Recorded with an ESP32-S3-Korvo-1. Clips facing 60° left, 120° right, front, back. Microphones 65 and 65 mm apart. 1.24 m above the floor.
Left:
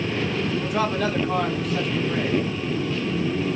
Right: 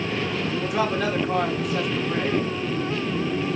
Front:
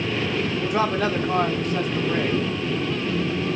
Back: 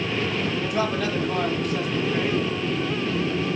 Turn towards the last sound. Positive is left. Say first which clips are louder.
# right 2 dB, front 4 dB
turn(degrees=-40)